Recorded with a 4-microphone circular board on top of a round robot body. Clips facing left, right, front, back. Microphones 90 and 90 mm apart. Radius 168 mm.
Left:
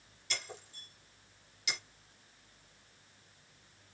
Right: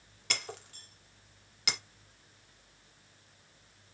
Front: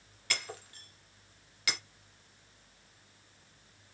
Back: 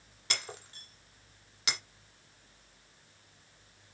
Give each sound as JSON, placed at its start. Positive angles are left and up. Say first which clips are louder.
{"t": 0.3, "sound": "breaking glass", "louder": "right 4 dB, front 1 dB", "azimuth_deg": -115, "distance_m": 1.5}